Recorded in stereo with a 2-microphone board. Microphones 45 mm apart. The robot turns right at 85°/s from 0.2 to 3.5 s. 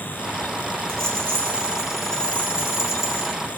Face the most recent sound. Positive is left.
turn(degrees=135)